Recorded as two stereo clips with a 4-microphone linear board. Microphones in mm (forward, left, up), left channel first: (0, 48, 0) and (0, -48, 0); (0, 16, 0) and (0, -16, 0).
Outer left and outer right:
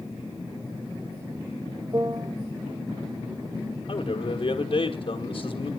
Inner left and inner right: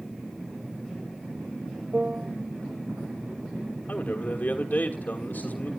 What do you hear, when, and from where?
1.9 s a piano: 50° right (ahead or behind), 0.7 m
3.9 s a man speaking: 65° left (ahead or behind), 1.5 m